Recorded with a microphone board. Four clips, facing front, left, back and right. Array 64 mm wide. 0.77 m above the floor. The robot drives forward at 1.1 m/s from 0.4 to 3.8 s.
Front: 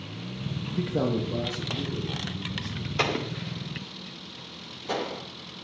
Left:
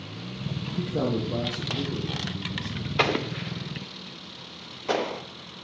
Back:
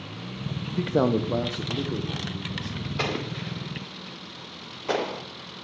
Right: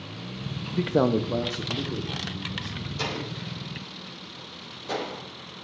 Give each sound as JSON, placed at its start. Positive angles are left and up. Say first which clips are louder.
{"t": 0.8, "sound": "a man speaking", "louder": "right 5 dB, back 4 dB", "azimuth_deg": -100, "distance_m": 0.5}
{"t": 3.0, "sound": "an explosion", "louder": "left 8 dB, front 2 dB", "azimuth_deg": 75, "distance_m": 0.7}